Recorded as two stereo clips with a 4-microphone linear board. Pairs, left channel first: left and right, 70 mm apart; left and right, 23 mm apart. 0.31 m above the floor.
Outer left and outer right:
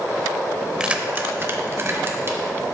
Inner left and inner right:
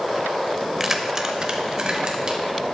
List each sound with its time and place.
0.8 s keys jangling: 10° right (ahead or behind), 0.6 m; by 2.4 s 35° right (ahead or behind), 1.6 m